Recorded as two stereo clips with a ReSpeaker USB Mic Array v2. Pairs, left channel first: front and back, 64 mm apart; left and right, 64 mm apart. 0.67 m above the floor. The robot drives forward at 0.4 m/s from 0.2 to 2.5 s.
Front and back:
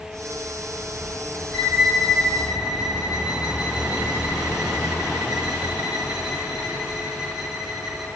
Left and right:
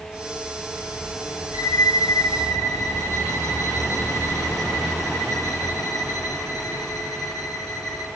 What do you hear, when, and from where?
1.5 s a violin: 95° left, 7 m; by 8.1 s 100° left, 7 m